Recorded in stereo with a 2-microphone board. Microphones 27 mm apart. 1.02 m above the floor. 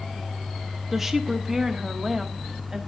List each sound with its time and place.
0.9 s a woman speaking: 10° right (ahead or behind), 1.2 m